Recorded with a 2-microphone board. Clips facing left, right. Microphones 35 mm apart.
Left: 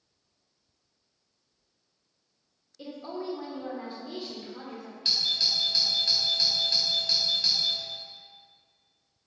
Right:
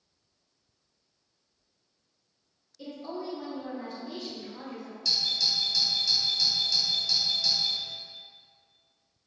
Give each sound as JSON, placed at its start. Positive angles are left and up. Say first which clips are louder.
{"t": 2.8, "sound": "a woman speaking", "louder": "even", "side_deg": 25, "distance_m": 1.4}
{"t": 5.0, "sound": "a doorbell", "louder": "left 1 dB", "side_deg": 40, "distance_m": 1.5}